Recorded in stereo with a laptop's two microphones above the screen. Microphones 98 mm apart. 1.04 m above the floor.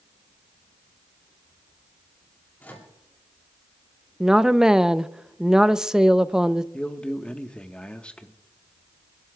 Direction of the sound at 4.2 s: 5° right (ahead or behind).